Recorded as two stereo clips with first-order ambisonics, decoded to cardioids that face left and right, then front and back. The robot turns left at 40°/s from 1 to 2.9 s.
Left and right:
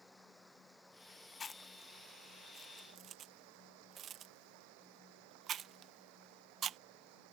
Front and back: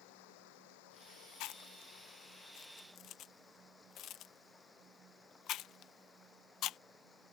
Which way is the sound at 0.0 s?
Straight ahead.